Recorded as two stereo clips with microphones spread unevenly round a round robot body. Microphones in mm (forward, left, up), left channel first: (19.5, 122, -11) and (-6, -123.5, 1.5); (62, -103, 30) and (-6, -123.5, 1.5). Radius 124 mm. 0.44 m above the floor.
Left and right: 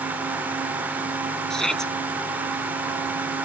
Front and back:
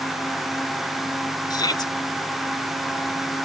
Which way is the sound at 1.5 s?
5° right.